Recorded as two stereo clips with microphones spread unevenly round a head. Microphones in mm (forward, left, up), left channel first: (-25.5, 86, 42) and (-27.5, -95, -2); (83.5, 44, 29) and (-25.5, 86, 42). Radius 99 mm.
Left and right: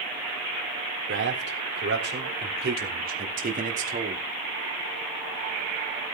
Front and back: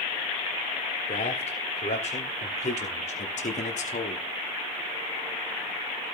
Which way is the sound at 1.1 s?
65° right.